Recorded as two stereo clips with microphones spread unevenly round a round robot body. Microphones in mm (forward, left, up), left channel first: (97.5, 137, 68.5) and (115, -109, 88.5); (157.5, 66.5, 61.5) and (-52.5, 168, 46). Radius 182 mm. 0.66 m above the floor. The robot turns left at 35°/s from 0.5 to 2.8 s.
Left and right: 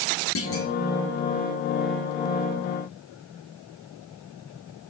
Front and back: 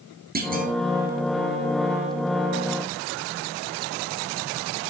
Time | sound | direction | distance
0.3 | a clunk | 110° left | 1.8 m